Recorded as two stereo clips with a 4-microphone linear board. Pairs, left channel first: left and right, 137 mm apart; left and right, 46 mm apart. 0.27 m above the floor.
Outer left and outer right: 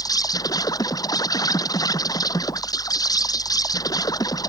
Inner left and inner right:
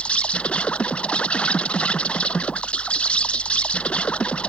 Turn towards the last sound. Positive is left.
turn(degrees=25)  # may be behind; listen again after turning